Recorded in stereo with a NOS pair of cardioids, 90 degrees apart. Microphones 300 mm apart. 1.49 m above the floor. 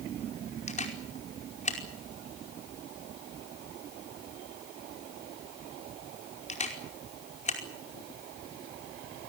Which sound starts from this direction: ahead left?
A camera shutter, at 0.7 s.